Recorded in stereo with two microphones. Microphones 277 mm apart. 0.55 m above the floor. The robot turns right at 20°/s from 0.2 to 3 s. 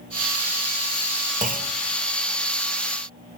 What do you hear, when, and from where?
1.4 s a clunk: 25° right (ahead or behind), 1.1 m; by 1.7 s 35° right (ahead or behind), 1.1 m